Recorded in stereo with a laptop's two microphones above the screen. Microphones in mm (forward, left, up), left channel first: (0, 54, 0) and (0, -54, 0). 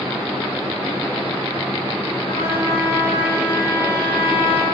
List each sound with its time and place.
2.3 s a trumpet: 60° left (ahead or behind), 1.5 m